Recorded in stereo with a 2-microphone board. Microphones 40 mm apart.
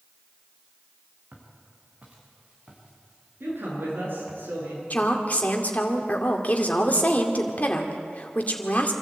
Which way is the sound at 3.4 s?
65° right (ahead or behind).